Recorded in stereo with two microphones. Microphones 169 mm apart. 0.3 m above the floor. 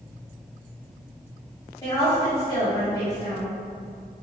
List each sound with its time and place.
1.8 s a woman speaking: 25° left (ahead or behind), 2.0 m